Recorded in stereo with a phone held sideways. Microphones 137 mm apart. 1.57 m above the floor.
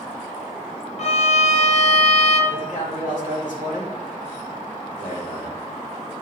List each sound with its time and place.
1.0 s a violin: 55° left (ahead or behind), 1.2 m
2.5 s a man speaking: 70° left (ahead or behind), 3 m